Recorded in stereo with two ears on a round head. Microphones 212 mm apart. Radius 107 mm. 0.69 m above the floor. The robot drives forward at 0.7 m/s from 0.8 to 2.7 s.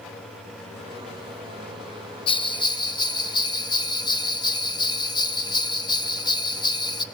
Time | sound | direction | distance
2.3 | a bell | 25° left (ahead or behind) | 1.0 m